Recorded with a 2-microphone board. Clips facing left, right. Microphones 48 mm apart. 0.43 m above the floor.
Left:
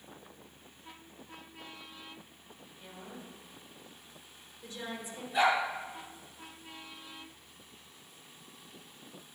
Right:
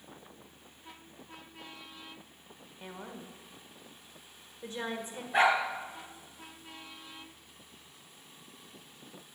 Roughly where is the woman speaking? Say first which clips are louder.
Right 3 dB; right.